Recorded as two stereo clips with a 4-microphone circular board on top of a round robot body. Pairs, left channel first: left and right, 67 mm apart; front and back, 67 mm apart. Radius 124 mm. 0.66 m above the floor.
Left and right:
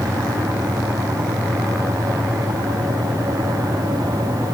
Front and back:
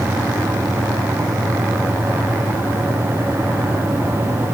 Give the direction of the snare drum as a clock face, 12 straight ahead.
No snare drum in this recording.